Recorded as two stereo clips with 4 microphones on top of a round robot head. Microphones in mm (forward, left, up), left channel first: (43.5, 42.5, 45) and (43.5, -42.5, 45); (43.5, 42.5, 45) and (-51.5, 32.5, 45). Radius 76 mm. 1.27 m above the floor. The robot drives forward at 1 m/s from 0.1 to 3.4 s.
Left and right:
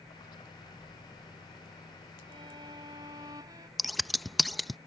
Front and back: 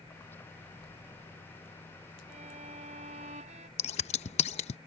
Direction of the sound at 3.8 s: Straight ahead.